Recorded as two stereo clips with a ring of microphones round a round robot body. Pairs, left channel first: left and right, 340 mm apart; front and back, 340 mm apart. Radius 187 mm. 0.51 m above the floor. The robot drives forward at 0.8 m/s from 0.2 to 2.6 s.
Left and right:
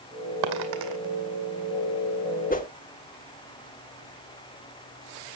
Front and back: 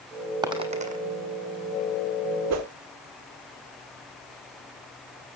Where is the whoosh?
150° left, 1.4 m.